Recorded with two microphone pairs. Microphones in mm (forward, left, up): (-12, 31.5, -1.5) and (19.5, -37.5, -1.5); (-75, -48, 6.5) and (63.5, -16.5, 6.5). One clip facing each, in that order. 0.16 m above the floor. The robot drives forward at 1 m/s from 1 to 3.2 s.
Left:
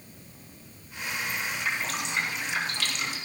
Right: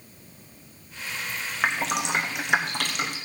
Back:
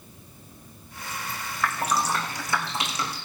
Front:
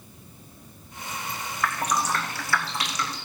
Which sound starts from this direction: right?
Dripping, at 1.6 s.